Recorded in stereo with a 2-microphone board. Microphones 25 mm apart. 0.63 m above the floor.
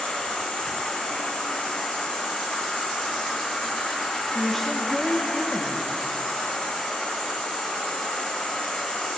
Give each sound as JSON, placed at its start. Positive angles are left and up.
{"t": 0.0, "sound": "an insect", "side_deg": 75, "distance_m": 3.5}
{"t": 4.3, "sound": "a woman speaking", "side_deg": 15, "distance_m": 1.0}